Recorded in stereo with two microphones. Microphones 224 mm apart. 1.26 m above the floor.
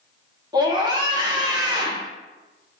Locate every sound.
0.5 s a scream: 20° right (ahead or behind), 1.2 m